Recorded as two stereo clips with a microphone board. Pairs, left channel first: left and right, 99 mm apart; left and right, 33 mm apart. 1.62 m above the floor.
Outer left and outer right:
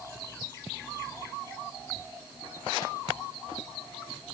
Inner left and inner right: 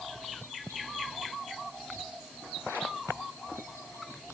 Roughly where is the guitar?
I don't hear a guitar.